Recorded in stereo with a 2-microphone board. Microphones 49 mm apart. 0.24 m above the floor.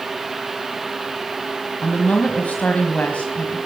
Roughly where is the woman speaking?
Left.